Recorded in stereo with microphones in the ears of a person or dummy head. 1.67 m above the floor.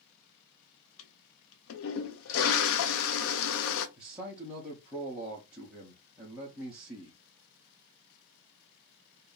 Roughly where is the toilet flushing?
Left.